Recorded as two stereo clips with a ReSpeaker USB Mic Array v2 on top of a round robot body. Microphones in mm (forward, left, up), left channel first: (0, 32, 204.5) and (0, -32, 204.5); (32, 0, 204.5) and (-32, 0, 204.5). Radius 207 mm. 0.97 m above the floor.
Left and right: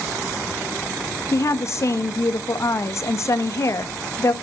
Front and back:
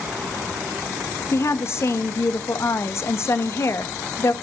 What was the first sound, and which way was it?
A woman speaking, 45° left.